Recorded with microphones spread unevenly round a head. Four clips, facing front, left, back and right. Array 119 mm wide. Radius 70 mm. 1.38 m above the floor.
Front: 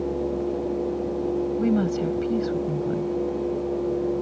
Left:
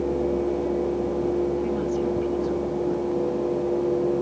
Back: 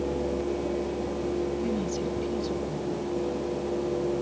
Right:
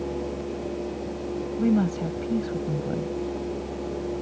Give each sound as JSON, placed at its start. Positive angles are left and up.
{"t": 1.6, "sound": "a woman speaking", "azimuth_deg": -55}